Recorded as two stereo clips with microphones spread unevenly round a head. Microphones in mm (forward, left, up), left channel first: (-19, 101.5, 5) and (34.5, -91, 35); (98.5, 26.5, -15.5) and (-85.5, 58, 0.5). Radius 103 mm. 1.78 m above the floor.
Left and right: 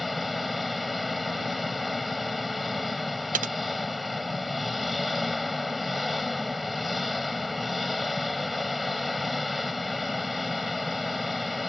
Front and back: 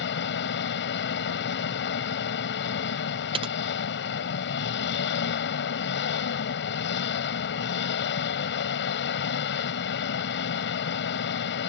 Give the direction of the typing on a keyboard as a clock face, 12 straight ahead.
4 o'clock.